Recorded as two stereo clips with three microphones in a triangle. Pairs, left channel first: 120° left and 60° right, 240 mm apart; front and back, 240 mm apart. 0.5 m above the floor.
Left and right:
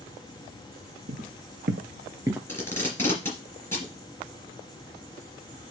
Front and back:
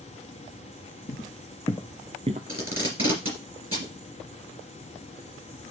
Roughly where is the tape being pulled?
Behind.